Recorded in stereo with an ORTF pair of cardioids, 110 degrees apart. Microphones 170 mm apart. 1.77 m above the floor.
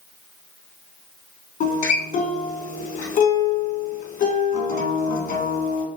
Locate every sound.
1.6 s a guitar: 55° left, 3.5 m